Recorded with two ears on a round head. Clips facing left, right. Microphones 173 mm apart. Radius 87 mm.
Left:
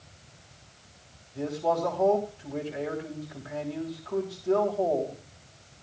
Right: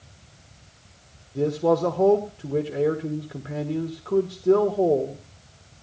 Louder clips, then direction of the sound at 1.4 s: Right 7 dB; 60° right (ahead or behind).